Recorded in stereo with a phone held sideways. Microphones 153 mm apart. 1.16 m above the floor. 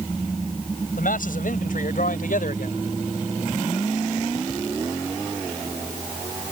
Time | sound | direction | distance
0.9 | a man speaking | 70° left (ahead or behind) | ?